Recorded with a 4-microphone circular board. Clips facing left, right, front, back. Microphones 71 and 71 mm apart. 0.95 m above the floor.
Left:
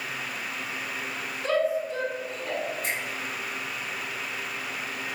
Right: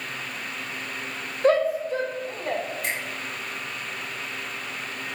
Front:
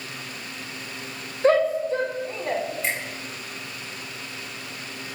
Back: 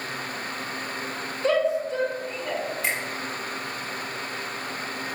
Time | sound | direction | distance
1.4 | a shout | 50° right | 0.7 m
2.8 | a finger snap | 100° right | 1.6 m